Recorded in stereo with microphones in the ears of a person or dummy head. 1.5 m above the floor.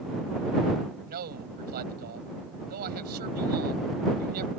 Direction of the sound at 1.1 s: 55° right (ahead or behind).